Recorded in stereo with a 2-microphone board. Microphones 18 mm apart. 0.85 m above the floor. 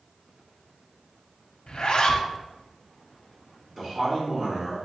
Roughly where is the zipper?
Left.